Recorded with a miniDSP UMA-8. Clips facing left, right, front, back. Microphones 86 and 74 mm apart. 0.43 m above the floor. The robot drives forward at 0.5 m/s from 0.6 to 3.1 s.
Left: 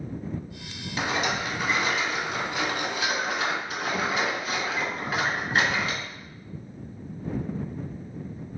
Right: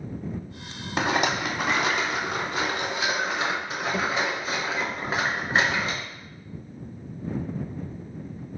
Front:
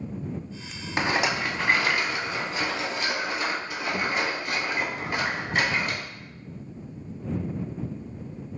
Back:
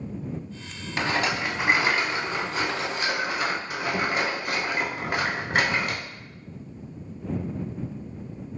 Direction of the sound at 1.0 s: 65° right.